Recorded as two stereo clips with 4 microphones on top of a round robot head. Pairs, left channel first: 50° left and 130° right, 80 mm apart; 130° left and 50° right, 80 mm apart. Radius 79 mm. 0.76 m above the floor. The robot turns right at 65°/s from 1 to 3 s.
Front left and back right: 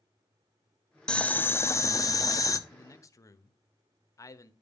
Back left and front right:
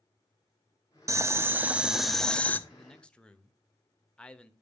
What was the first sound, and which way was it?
Boiling, 25° right.